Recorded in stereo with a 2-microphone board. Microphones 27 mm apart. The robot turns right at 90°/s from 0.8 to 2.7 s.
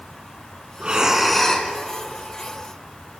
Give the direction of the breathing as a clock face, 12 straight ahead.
2 o'clock.